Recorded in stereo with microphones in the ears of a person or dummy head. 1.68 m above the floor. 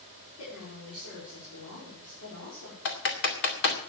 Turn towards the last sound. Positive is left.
turn(degrees=60)  # may be behind; listen again after turning